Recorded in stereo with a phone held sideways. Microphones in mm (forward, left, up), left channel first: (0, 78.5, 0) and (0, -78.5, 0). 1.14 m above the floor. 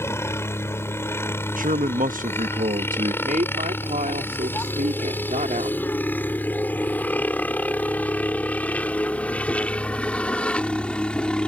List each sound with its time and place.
0.0 s a helicopter: 15° left (ahead or behind); by 11.5 s 5° left (ahead or behind)
1.6 s a man speaking: 60° right (ahead or behind)
3.2 s a woman speaking: 60° right (ahead or behind)